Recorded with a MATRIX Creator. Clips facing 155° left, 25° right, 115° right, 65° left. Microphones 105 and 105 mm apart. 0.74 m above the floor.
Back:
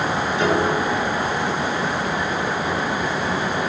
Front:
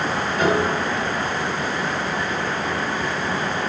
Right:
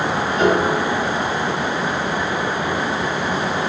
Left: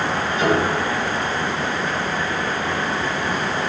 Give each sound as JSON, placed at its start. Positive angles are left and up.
{"t": 0.4, "sound": "a piano", "azimuth_deg": -65, "distance_m": 4.5}